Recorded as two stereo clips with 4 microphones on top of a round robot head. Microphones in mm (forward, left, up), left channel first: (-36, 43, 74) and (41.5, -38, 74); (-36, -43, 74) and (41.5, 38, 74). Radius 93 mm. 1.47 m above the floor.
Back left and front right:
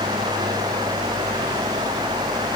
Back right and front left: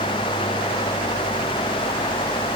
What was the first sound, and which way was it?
Only background noise.